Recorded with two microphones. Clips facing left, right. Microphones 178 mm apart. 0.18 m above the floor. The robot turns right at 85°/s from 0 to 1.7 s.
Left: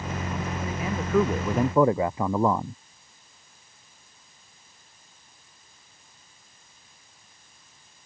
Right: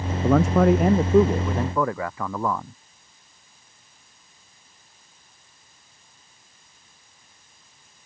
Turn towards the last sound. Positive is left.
turn(degrees=20)